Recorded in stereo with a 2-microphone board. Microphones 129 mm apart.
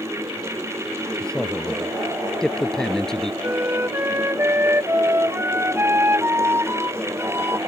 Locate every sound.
1.2 s a man speaking: 5° left (ahead or behind)
3.4 s a flute: 20° right (ahead or behind)